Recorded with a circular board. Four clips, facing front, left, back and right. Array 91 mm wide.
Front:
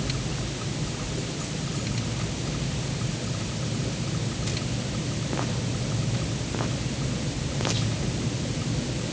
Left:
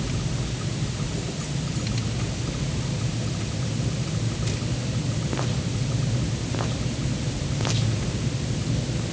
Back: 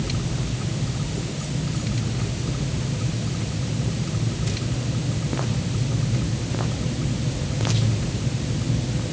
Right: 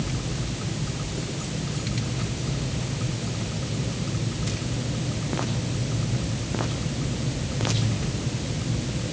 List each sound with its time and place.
Only background noise.